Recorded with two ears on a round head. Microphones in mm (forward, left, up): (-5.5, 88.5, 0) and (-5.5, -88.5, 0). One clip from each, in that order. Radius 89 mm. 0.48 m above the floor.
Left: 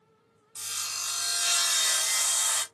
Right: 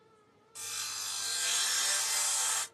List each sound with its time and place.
0.6 s sawing: 25° left (ahead or behind), 1.5 m